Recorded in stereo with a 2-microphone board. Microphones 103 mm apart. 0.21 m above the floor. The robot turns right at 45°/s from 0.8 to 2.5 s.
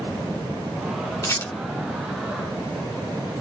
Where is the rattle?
35° left (ahead or behind), 0.9 m; by 1.5 s 25° left (ahead or behind), 0.9 m.